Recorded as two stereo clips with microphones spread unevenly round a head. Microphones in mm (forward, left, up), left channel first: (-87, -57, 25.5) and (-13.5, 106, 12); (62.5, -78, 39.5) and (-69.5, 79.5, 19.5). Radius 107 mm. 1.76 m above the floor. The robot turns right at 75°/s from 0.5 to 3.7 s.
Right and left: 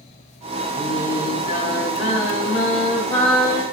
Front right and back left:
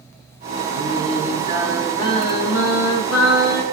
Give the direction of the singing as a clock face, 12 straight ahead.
7 o'clock.